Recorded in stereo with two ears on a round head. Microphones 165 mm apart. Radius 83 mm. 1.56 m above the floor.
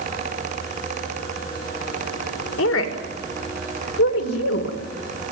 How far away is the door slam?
No door slam in this recording.